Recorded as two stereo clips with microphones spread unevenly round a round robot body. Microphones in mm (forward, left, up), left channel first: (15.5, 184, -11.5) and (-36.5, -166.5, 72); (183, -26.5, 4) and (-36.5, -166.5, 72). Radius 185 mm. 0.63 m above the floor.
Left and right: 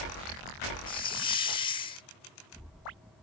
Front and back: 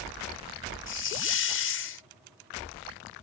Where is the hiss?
10° left.